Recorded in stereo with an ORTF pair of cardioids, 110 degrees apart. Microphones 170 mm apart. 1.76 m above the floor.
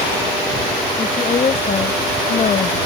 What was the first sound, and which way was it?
A woman speaking, 35° left.